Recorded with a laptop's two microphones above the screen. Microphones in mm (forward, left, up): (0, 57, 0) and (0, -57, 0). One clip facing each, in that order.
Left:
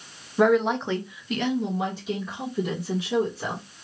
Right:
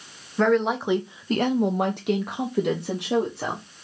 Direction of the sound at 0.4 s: 15° left (ahead or behind).